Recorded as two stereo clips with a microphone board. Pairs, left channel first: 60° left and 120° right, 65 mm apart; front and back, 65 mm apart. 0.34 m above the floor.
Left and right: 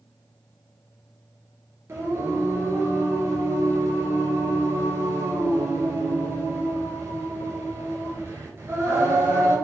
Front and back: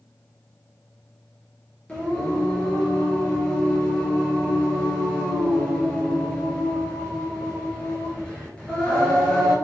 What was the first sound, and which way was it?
Singing, 70° right.